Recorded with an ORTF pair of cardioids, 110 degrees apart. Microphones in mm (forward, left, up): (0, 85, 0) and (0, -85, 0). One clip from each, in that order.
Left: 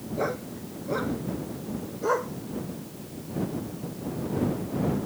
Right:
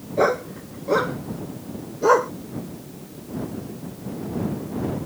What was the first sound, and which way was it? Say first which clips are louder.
A dog barking: right 10 dB; 55° right.